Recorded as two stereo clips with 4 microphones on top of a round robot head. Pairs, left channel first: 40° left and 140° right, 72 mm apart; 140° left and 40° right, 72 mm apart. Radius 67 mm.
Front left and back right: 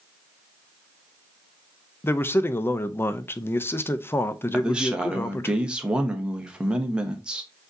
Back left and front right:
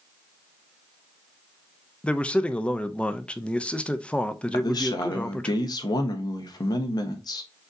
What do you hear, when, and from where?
2.0 s a man speaking: 75° left, 0.6 m
4.5 s a man speaking: 145° left, 1.1 m